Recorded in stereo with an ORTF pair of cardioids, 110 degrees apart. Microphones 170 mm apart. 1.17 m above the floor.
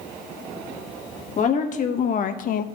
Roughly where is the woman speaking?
Ahead left.